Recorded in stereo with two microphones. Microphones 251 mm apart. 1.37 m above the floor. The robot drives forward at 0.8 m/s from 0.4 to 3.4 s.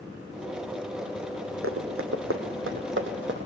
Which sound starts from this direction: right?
Running footsteps, at 1.6 s.